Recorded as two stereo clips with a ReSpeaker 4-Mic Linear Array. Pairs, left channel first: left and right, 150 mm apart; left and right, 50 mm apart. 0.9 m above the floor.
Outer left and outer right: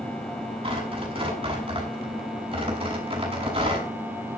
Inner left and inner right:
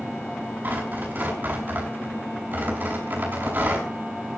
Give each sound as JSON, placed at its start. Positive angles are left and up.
{"t": 0.6, "sound": "tearing paper", "side_deg": -35, "distance_m": 6.0}